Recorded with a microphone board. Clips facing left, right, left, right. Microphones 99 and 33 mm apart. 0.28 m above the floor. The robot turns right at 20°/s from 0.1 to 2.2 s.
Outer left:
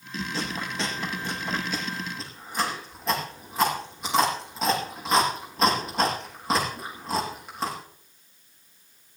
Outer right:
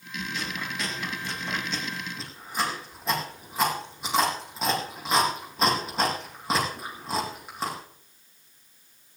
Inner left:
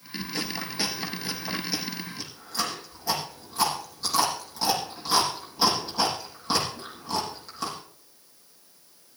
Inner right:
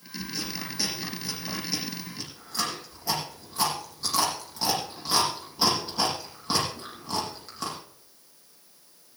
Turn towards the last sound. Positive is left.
turn(degrees=0)  # may be behind; listen again after turning